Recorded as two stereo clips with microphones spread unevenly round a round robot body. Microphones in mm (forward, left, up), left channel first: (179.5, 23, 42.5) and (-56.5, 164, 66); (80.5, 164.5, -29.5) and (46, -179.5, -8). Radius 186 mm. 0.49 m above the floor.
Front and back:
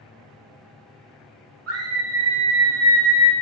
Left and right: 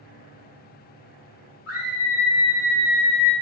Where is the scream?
120° left, 2.5 m; by 3.3 s 140° left, 1.7 m.